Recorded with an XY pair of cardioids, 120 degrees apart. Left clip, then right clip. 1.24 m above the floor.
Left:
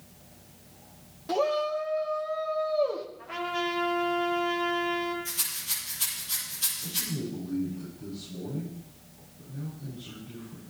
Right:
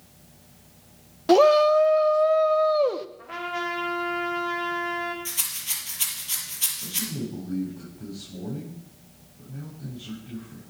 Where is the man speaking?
45° right, 10 m.